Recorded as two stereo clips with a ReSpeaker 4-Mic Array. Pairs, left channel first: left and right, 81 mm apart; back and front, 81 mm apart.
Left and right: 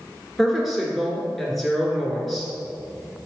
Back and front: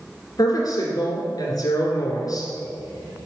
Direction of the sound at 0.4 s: Straight behind.